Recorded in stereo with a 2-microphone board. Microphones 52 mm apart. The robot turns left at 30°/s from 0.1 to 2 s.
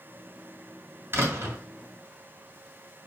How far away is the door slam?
About 1.7 m.